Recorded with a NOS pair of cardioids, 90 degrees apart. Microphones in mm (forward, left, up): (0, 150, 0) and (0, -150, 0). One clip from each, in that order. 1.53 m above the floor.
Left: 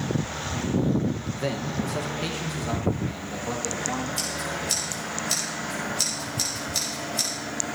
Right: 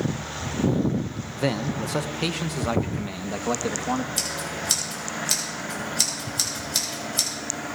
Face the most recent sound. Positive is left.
turn(degrees=-40)